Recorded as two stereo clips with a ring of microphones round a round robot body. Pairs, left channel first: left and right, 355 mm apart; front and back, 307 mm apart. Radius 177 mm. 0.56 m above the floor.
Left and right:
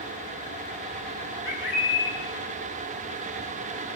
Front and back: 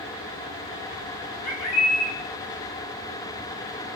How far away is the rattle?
No rattle in this recording.